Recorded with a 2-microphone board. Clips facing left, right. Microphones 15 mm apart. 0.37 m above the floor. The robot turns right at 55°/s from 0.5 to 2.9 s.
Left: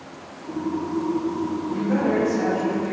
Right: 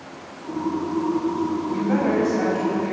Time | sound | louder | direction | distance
1.7 | a woman speaking | even | 95° right | 1.7 m